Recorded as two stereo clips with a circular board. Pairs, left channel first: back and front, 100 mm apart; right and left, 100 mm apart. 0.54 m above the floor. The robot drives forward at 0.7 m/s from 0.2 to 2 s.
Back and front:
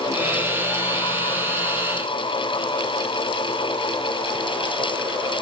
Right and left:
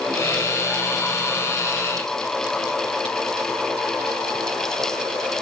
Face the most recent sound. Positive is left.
No sound to turn to.